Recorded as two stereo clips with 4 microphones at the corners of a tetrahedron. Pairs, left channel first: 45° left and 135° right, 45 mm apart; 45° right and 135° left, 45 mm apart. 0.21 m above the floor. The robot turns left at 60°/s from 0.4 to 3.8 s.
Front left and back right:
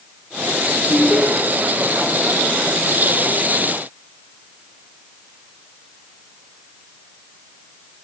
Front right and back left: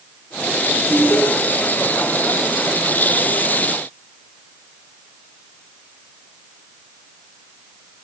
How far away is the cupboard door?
I don't hear a cupboard door.